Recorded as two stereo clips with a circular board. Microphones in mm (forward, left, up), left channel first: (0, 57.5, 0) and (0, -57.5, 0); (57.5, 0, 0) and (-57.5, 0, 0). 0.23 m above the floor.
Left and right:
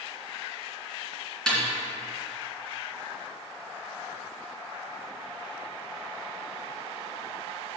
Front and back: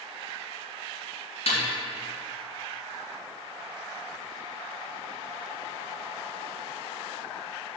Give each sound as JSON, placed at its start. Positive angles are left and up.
{"t": 1.5, "sound": "a snare drum", "azimuth_deg": 5, "distance_m": 2.5}